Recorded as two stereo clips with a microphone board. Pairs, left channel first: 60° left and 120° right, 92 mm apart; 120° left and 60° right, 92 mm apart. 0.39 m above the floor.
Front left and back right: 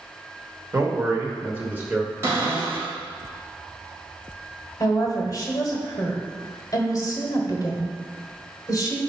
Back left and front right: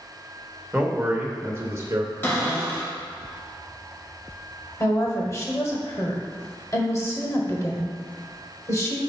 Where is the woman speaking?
85° left, 1.2 m.